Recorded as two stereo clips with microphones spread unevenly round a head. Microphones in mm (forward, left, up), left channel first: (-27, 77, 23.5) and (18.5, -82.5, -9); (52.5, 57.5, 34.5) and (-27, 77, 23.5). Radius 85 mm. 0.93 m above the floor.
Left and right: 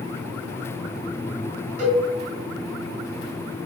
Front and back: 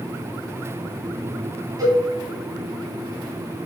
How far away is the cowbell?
About 3 m.